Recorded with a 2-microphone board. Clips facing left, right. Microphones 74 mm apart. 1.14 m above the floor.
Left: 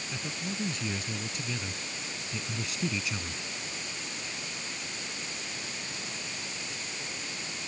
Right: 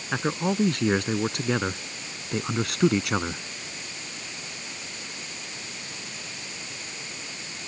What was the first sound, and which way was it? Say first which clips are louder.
A man speaking: right 13 dB; 65° right (ahead or behind).